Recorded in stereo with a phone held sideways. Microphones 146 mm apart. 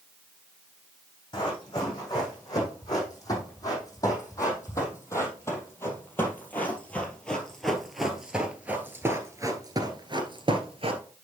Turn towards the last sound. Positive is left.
turn(degrees=-45)  # may be behind; listen again after turning